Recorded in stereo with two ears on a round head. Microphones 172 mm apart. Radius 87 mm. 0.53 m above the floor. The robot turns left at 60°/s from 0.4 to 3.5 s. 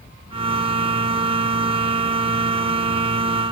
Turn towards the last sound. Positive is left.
No sound to turn to.